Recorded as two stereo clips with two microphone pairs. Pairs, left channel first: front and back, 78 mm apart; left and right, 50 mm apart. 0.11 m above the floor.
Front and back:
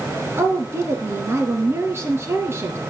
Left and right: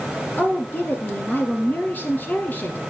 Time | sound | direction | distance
0.4 | a woman speaking | 130° left | 2.5 m